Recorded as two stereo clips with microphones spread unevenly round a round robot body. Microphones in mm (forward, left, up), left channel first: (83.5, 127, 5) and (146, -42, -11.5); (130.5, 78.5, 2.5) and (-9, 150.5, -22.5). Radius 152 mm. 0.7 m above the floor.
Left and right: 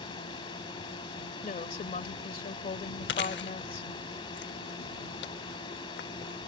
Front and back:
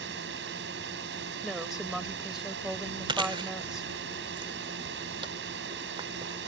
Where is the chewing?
85° left.